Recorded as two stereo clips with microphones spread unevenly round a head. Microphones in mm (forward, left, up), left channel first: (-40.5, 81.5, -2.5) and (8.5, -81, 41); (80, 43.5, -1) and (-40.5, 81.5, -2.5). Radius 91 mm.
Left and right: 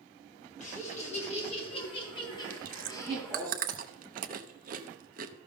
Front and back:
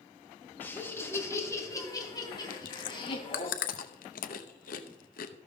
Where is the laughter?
55° left, 3.5 m; by 3.5 s 25° left, 3.5 m.